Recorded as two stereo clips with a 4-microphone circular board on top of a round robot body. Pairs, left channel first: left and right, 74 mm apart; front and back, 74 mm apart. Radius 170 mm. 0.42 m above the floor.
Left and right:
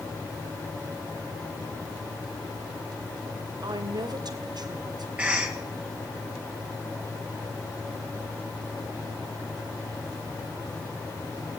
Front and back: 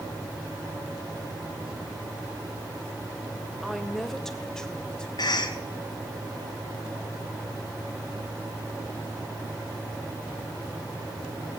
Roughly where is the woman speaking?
Right.